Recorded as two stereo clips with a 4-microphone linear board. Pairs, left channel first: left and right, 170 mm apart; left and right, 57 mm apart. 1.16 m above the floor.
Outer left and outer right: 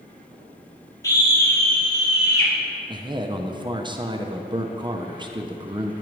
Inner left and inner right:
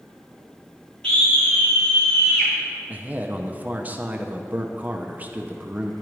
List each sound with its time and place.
1.0 s a scream: 20° left (ahead or behind), 2.5 m; by 2.5 s 25° left (ahead or behind), 4 m
2.9 s a man speaking: 25° right (ahead or behind), 0.6 m